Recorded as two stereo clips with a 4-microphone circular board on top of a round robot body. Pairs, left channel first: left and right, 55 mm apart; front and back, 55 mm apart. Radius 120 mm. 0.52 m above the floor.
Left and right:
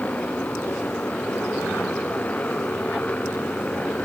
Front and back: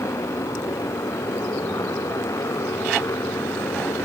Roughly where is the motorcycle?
Ahead left.